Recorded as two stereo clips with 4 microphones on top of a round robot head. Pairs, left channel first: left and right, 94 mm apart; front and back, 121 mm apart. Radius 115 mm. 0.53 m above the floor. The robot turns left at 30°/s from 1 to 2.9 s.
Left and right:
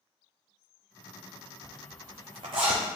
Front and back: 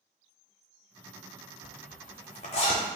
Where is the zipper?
20° right, 0.7 m; by 2.8 s 55° right, 0.7 m.